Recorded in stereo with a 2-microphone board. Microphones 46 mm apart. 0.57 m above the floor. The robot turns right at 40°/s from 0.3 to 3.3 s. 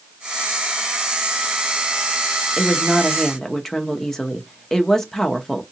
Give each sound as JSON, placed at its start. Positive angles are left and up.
{"t": 2.6, "sound": "a woman speaking", "side_deg": 0, "distance_m": 0.7}